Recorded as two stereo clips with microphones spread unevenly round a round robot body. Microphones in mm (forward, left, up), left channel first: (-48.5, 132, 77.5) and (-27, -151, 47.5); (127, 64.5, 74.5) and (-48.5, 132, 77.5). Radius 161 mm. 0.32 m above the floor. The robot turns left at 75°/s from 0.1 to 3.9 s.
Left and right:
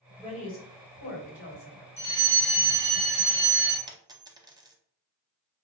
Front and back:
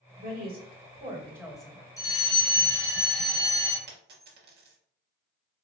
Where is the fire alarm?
35° left, 2 m; by 3.8 s 100° right, 2 m.